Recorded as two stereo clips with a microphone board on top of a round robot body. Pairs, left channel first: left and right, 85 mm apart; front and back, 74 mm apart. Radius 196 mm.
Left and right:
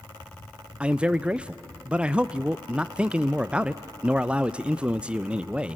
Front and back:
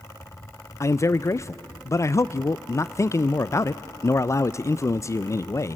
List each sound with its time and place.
0.8 s a man speaking: 20° right, 0.5 m